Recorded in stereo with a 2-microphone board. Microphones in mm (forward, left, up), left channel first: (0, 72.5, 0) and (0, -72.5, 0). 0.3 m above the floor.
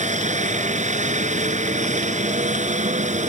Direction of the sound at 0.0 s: 55° right (ahead or behind).